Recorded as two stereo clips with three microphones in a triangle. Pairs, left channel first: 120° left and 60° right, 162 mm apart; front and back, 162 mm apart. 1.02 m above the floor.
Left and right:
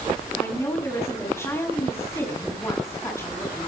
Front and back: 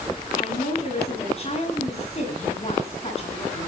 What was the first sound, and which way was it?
A woman speaking, 45° left.